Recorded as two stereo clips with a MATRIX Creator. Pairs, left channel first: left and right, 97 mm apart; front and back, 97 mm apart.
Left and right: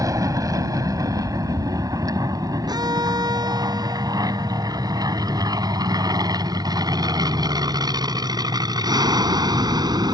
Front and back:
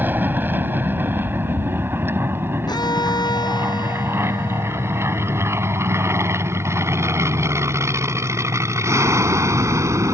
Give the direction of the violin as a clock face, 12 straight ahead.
1 o'clock.